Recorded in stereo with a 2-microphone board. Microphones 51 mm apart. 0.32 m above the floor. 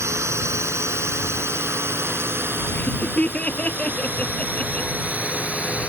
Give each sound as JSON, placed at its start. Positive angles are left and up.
{"t": 0.0, "sound": "a drone", "side_deg": -70}
{"t": 2.8, "sound": "laughter", "side_deg": 30}